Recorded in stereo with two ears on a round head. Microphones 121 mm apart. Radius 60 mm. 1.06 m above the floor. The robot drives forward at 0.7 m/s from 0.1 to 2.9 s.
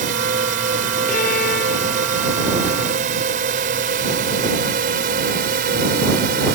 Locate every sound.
0.0 s a drone: 70° right (ahead or behind); by 6.6 s 80° right
1.1 s a violin: 65° left (ahead or behind); by 2.9 s 80° left